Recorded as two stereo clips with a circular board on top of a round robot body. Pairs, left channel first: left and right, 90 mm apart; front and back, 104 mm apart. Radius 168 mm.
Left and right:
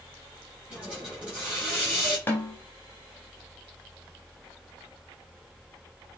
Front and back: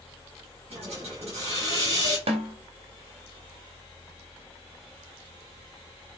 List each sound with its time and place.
0.7 s a hiss: 170° right, 7 m
2.3 s a snare drum: 160° left, 1.9 m